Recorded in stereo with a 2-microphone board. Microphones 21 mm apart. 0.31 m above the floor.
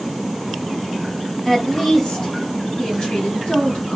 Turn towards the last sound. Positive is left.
turn(degrees=65)  # may be behind; listen again after turning